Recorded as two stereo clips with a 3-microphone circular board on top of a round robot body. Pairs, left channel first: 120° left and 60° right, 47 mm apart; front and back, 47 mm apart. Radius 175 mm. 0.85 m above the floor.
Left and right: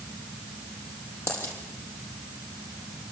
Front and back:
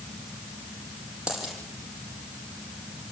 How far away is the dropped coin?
About 6.5 m.